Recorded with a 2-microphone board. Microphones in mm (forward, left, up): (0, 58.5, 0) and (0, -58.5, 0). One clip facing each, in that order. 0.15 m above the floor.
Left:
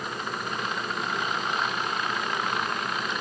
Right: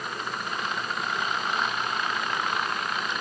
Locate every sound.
Only background noise.